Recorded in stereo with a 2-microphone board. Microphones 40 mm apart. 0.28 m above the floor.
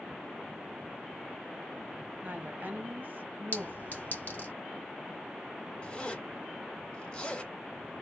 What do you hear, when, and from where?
2.2 s a woman speaking: 45° right (ahead or behind), 1.5 m
3.5 s a clink: 45° left (ahead or behind), 2 m
5.8 s a zipper: 25° left (ahead or behind), 2 m